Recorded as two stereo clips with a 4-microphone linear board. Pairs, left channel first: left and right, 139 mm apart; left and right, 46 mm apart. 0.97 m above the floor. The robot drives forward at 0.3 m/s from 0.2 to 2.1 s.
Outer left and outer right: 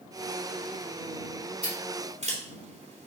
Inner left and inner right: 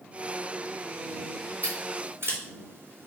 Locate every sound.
1.6 s scissors: 50° right (ahead or behind), 4 m